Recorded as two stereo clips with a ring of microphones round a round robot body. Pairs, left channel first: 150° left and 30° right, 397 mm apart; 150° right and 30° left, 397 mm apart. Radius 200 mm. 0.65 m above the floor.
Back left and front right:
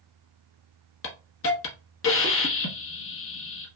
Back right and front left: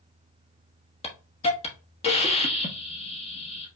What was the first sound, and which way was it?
A hiss, 150° left.